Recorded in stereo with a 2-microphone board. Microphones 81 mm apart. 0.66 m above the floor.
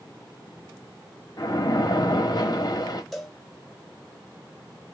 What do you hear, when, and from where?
1.4 s a splash: 50° left (ahead or behind), 1.3 m
3.1 s a cowbell: centre (ahead or behind), 0.8 m